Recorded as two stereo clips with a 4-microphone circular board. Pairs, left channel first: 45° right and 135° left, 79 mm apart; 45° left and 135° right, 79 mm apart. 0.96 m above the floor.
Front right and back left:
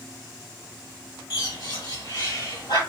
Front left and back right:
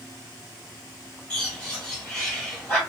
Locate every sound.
1.3 s a bird: 30° right, 2 m